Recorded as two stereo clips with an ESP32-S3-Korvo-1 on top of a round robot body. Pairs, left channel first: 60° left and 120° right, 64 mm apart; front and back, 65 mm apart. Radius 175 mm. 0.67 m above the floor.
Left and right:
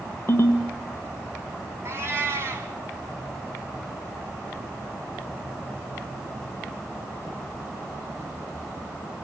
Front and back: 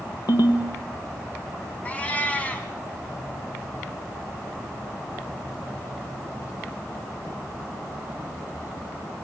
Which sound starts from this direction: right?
A cat meowing, at 1.9 s.